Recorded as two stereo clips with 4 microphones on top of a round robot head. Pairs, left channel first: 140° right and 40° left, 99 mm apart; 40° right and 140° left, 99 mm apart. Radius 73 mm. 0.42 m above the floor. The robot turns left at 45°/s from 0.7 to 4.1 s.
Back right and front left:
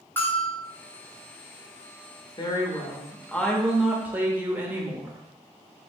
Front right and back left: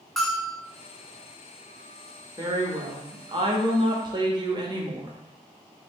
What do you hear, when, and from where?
0.2 s a bell: 120° right, 1.4 m
2.4 s a woman speaking: 175° right, 1.2 m; by 5.2 s 110° left, 1.2 m